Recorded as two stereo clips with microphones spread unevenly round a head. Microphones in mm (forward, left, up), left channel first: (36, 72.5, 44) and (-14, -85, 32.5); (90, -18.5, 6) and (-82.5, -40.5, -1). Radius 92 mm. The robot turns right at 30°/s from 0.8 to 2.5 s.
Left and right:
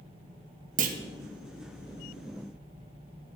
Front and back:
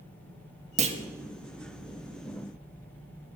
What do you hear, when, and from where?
0.8 s a clunk: 130° right, 1.4 m; by 1.0 s 125° right, 1.4 m